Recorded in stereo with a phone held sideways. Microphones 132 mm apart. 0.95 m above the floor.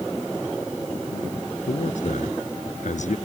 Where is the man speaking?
70° left (ahead or behind).